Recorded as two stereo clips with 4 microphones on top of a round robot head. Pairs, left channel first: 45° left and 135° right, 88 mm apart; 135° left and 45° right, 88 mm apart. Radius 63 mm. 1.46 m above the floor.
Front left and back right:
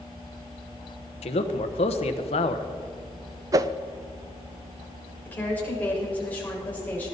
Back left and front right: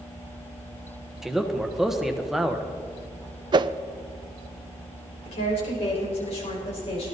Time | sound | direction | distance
1.2 | a man speaking | 45° left | 1.2 m
3.5 | a whoosh | 85° right | 0.5 m
5.2 | a woman speaking | 115° left | 5 m